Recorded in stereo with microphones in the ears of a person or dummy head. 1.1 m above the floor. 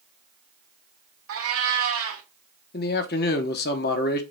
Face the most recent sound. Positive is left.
turn(degrees=40)  # may be behind; listen again after turning